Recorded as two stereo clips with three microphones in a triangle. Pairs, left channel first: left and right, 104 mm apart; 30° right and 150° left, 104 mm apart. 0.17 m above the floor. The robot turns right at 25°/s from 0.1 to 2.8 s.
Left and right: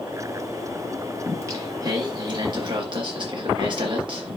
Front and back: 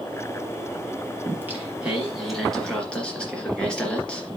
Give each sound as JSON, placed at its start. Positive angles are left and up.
{"t": 1.2, "sound": "singing", "azimuth_deg": -145, "distance_m": 2.5}